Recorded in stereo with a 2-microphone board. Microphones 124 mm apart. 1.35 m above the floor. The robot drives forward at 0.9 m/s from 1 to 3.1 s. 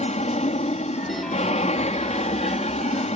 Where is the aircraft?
65° left (ahead or behind).